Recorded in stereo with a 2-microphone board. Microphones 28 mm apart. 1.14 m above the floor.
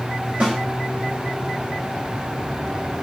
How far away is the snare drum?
About 2.5 m.